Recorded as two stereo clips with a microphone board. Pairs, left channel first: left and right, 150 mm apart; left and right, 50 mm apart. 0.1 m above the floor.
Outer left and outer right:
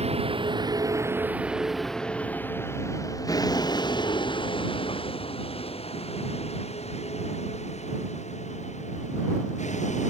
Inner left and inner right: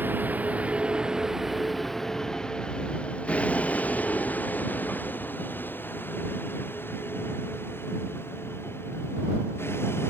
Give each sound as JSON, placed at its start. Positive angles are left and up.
{"t": 0.0, "sound": "a vehicle", "side_deg": -45}